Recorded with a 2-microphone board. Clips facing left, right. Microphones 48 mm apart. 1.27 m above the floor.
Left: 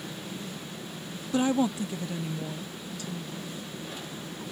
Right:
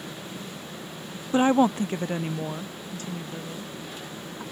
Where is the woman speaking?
30° right (ahead or behind); by 4.4 s 40° right (ahead or behind).